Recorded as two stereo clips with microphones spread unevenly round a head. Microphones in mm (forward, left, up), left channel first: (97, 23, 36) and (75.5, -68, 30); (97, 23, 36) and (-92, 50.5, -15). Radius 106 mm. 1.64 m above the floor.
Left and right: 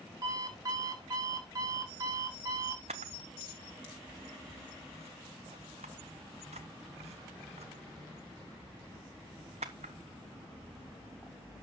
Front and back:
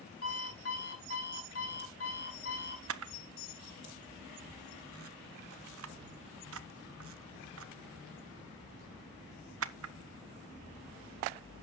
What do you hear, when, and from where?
0.2 s an alarm clock: 55° right, 5.5 m
2.9 s a camera shutter: 155° right, 0.7 m